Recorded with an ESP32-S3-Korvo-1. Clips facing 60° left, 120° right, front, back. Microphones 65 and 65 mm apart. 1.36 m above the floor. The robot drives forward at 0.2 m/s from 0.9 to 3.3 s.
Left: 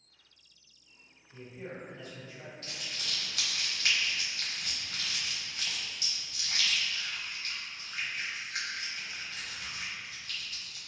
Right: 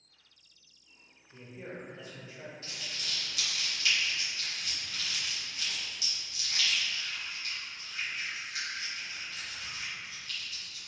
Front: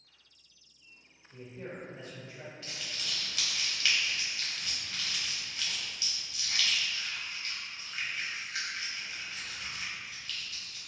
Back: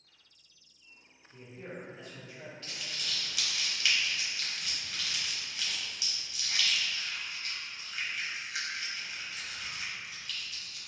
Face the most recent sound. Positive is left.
turn(degrees=95)